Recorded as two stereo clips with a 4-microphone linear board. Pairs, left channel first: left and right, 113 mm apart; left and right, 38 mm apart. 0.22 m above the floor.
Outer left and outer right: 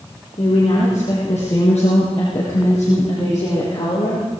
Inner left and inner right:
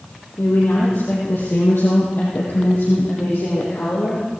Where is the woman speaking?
80° left, 7.5 m; by 4.2 s 65° left (ahead or behind), 8 m.